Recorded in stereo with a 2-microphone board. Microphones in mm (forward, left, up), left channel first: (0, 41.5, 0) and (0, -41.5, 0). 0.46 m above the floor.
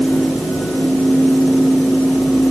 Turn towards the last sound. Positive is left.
No sound to turn to.